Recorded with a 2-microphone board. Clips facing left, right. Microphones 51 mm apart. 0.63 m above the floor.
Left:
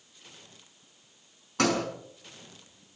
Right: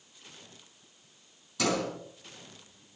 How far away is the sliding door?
About 5.5 m.